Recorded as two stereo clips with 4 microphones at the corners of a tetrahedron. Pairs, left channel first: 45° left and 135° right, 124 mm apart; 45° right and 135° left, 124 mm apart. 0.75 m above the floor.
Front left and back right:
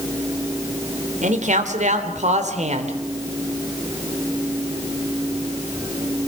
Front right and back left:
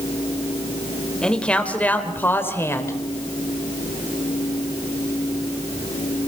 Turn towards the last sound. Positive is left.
turn(degrees=-110)